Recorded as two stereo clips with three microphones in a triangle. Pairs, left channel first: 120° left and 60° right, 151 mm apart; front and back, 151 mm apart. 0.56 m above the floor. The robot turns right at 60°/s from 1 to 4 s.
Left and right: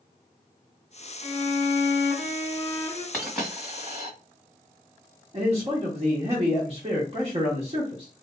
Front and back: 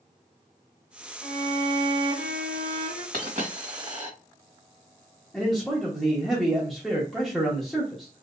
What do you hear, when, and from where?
1.2 s a violin: 105° left, 2 m; by 3.0 s 145° right, 2 m
3.1 s a dropped coin: 155° right, 2 m; by 4.1 s 105° right, 2 m
5.3 s a man speaking: 90° right, 0.9 m